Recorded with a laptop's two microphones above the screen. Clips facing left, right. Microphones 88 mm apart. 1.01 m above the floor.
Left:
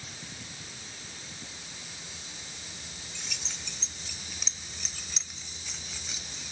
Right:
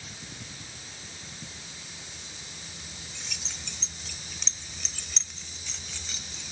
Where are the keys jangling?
Centre (ahead or behind); by 6.5 s 10° left (ahead or behind).